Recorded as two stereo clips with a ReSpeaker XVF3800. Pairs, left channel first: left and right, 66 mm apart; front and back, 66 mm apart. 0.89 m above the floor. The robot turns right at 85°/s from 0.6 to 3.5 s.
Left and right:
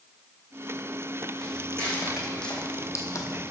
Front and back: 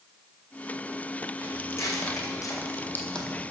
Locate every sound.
1.4 s footsteps: 70° right, 2.5 m; by 3.5 s 95° left, 1.2 m